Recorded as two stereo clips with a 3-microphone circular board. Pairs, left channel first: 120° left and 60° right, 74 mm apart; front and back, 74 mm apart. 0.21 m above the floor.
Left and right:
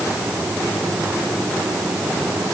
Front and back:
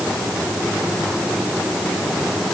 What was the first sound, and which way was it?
Only background noise.